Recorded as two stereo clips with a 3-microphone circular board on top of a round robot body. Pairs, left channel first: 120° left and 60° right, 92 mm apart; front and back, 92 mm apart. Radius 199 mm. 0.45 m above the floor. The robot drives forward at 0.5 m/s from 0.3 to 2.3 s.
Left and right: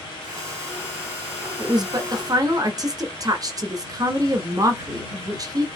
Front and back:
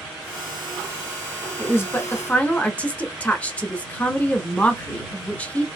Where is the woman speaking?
45° right, 1.4 m; by 5.7 s 65° right, 1.2 m.